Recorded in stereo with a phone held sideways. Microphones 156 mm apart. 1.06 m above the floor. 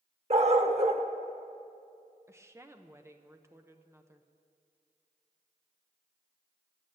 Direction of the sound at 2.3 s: 15° right (ahead or behind).